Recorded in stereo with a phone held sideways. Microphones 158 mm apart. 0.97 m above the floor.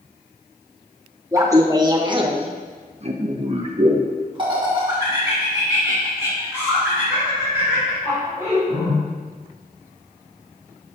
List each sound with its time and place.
1.3 s laughter: 20° right (ahead or behind), 1.2 m; by 9.0 s 15° right (ahead or behind), 3.5 m